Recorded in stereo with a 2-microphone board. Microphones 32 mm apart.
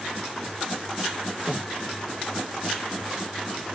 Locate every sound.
1.5 s breathing: centre (ahead or behind), 1.0 m